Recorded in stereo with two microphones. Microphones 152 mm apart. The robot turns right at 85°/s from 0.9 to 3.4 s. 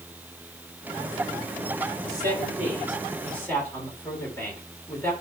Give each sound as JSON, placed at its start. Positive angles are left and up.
{"t": 2.1, "sound": "a man speaking", "azimuth_deg": -100, "distance_m": 3.5}